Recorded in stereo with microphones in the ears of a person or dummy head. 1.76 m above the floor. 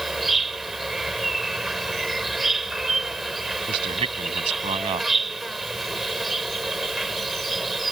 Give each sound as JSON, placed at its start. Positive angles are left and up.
{"t": 0.0, "sound": "an insect", "side_deg": 0}
{"t": 3.7, "sound": "a man speaking", "side_deg": -30}